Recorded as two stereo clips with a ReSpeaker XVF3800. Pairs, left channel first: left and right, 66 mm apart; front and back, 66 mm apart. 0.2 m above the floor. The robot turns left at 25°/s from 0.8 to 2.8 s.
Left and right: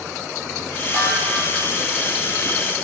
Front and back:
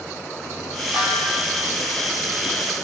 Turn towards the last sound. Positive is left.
turn(degrees=-155)